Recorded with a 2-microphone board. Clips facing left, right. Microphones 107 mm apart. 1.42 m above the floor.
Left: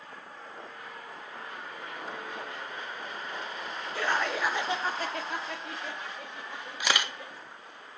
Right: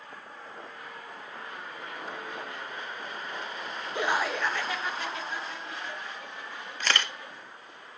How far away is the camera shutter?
About 0.8 m.